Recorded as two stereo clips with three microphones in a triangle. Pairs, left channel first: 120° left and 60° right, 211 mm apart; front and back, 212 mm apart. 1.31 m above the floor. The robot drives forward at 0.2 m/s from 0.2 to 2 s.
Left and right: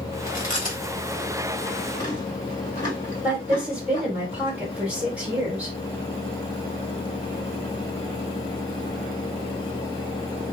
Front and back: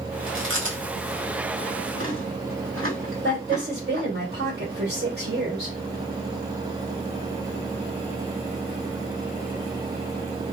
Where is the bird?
No bird in this recording.